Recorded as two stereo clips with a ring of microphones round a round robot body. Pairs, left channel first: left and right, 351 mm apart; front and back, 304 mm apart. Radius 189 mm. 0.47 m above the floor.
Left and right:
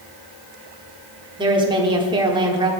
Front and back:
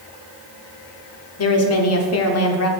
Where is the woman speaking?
15° right, 1.0 m.